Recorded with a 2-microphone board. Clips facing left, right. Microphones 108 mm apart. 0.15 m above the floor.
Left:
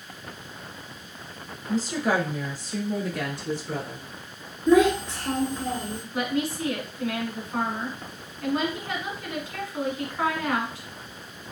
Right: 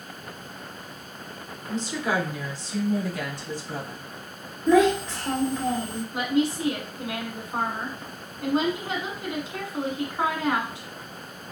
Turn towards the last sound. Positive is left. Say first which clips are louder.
# right 3 dB
turn(degrees=-20)  # may be behind; listen again after turning